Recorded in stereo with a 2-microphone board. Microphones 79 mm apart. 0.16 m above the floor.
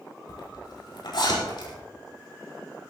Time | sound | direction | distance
0.3 | a zipper | 70° left (ahead or behind) | 5.5 m